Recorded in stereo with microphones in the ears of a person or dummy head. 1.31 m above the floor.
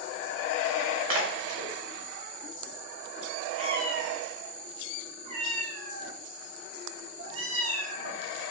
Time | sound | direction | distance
1.1 | a splash | 35° right (ahead or behind) | 2.5 m
3.6 | a cat meowing | 40° right (ahead or behind) | 1.2 m